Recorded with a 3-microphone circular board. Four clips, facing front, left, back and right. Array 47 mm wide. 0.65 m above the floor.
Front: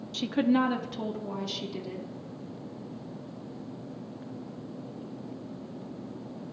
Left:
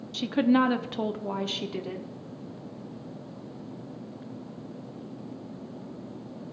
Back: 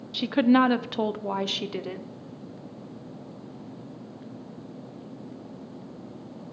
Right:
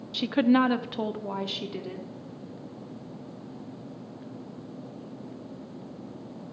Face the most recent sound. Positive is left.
turn(degrees=170)